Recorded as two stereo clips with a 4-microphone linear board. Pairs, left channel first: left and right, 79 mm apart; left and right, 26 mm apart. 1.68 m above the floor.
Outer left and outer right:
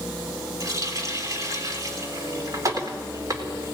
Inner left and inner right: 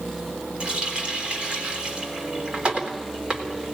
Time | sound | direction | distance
0.6 | a running tap | 45° right (ahead or behind) | 3.5 m